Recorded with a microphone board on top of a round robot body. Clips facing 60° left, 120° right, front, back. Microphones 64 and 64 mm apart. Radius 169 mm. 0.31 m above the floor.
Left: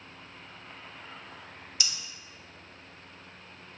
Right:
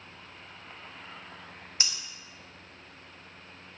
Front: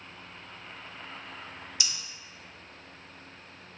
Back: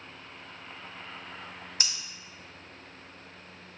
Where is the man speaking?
I don't hear a man speaking.